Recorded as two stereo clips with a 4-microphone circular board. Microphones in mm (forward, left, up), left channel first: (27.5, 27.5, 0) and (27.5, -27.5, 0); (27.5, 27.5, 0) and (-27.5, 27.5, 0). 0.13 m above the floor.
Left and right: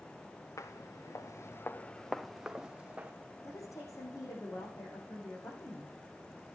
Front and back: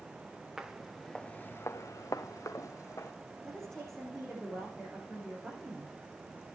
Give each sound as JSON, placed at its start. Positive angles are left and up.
{"t": 0.6, "sound": "footsteps", "azimuth_deg": 100, "distance_m": 1.3}
{"t": 3.4, "sound": "a woman speaking", "azimuth_deg": 85, "distance_m": 8.5}